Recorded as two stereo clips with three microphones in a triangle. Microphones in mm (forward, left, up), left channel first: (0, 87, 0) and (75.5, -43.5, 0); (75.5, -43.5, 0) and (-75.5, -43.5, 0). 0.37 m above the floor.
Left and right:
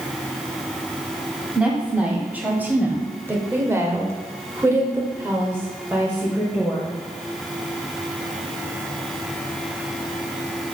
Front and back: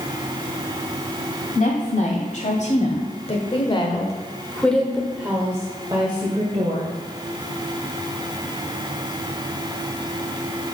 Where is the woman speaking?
20° left, 2.5 m; by 6.9 s 140° right, 2.0 m.